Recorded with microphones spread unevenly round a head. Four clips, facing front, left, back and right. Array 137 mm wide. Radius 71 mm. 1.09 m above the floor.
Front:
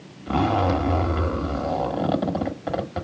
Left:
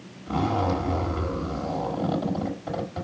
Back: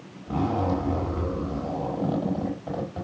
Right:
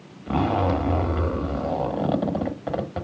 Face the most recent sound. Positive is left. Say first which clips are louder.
# right 3 dB, front 4 dB
turn(degrees=-40)